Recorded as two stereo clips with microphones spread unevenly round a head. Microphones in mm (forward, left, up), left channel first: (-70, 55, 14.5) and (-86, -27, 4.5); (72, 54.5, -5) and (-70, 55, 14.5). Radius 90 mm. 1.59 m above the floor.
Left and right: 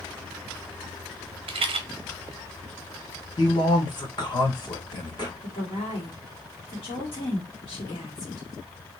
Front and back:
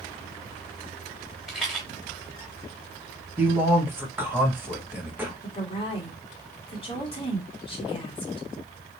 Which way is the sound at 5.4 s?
55° left.